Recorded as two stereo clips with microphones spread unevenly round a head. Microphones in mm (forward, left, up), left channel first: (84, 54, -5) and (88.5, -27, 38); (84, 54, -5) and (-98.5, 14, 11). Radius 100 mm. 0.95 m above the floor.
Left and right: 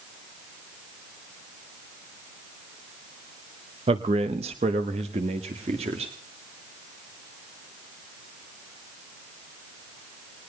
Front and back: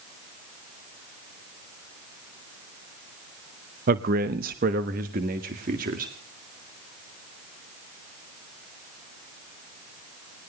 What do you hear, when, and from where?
3.9 s a man speaking: 130° right, 0.7 m; by 6.1 s 115° right, 2 m